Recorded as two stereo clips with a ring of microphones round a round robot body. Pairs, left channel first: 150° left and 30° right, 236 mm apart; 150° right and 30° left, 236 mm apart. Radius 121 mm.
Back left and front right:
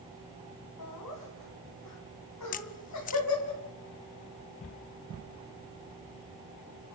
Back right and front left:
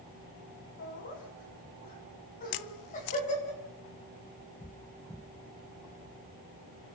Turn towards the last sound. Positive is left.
turn(degrees=-155)